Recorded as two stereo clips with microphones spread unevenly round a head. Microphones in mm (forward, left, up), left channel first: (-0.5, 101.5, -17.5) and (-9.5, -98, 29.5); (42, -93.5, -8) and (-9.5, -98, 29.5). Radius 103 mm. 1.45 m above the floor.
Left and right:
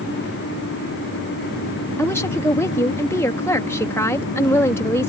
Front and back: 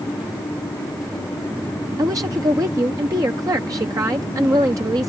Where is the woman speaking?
170° left.